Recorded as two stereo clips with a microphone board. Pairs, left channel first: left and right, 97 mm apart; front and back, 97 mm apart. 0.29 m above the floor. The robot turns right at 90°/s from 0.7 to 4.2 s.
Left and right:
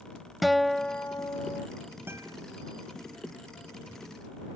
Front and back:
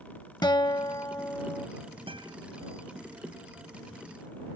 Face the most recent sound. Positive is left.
turn(degrees=35)